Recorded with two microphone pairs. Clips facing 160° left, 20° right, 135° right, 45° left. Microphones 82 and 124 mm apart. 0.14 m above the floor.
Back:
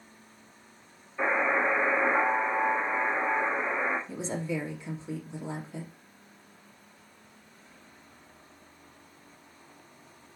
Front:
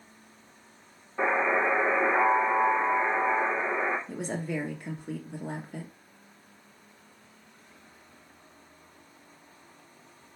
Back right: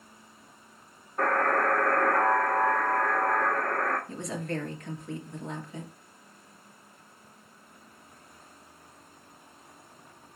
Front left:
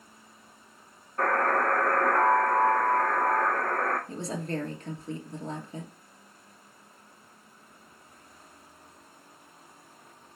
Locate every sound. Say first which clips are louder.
1.2 s a buzzer: front 1 dB, even; 50° right, 3 m
4.1 s a woman speaking: even, front left 1 dB; 10° right, 2 m